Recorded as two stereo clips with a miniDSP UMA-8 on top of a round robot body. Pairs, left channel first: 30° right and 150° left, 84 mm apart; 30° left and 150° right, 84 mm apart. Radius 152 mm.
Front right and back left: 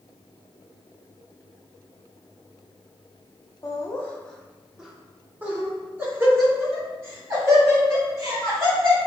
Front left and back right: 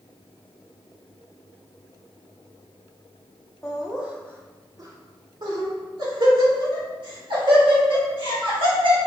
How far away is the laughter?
About 0.8 m.